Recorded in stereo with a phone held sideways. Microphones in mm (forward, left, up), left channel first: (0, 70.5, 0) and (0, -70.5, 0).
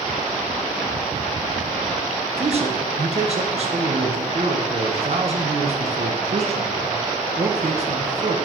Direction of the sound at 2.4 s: 50° right (ahead or behind).